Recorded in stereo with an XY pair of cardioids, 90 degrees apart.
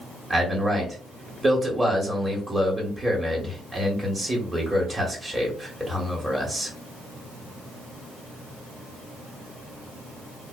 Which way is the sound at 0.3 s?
20° right.